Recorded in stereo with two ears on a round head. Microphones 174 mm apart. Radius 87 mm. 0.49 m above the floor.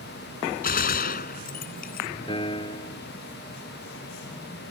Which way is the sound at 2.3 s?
25° left (ahead or behind).